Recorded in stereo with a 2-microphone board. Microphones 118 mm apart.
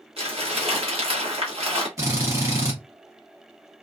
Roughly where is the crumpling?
Right.